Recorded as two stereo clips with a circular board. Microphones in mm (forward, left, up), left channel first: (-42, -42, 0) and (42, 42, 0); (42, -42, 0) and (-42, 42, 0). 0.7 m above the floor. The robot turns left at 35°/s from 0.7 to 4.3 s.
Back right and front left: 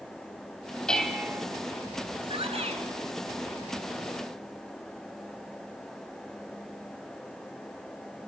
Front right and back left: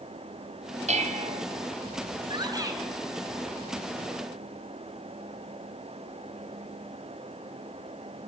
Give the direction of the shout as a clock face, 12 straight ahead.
9 o'clock.